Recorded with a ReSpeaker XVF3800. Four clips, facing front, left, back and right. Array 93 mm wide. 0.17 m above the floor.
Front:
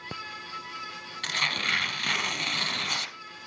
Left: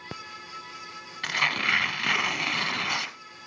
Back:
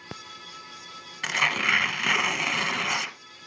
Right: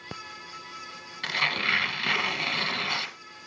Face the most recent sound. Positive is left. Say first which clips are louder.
# left 1 dB, back 5 dB
turn(degrees=160)